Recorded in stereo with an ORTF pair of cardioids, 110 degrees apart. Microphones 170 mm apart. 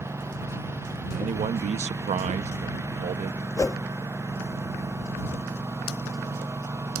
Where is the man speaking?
40° right.